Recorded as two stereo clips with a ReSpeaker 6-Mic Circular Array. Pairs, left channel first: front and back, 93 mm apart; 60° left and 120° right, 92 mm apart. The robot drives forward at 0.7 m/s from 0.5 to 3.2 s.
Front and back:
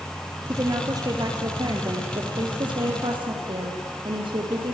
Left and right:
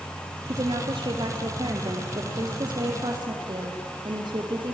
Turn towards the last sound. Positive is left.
turn(degrees=-155)